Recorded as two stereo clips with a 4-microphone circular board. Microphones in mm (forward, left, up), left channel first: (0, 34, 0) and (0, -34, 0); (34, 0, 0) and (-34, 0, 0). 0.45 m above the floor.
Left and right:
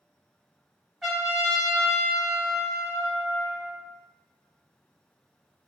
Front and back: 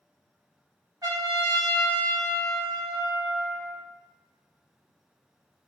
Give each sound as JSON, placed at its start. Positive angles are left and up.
{"t": 1.0, "sound": "a trumpet", "azimuth_deg": -175, "distance_m": 1.1}